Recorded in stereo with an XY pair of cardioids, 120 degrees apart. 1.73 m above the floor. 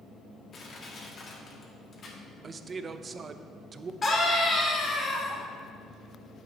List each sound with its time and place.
0.5 s crushing: 45° left, 2.0 m
2.4 s a man speaking: 35° right, 0.5 m
4.0 s a scream: 30° left, 2.5 m